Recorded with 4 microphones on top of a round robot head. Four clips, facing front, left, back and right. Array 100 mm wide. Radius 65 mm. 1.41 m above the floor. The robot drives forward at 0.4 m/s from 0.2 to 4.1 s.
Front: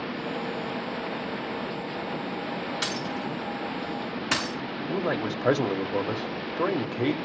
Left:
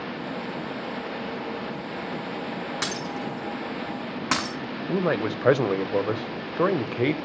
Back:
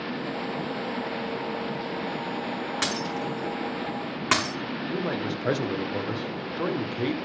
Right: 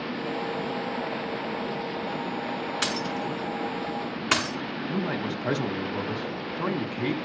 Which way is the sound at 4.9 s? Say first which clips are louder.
Left 6 dB, front 3 dB; 75° left.